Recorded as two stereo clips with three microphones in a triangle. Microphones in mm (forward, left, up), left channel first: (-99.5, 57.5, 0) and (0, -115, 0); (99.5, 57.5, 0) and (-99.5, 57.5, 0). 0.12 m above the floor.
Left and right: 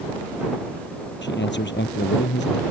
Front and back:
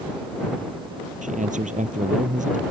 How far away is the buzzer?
I don't hear a buzzer.